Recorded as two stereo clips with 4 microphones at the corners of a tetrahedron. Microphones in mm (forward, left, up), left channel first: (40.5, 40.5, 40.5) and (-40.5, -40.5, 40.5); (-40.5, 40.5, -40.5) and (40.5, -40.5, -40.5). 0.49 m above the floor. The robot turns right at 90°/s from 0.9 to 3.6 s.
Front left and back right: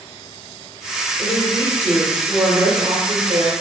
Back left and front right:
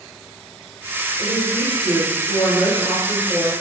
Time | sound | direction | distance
1.2 | a woman speaking | 45° left | 1.7 m